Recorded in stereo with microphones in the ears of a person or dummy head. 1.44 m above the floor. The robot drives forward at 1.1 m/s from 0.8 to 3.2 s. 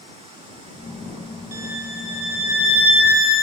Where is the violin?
75° right (ahead or behind), 1.3 m; by 3.5 s 35° right (ahead or behind), 2.5 m.